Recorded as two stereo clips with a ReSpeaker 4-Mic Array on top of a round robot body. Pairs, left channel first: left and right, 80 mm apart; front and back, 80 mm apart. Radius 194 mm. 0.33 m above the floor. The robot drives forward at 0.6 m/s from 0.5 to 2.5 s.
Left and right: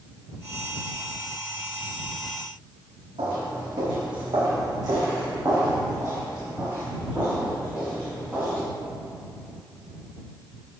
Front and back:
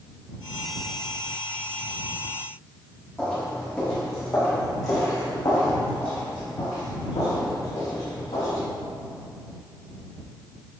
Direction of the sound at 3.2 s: 75° right.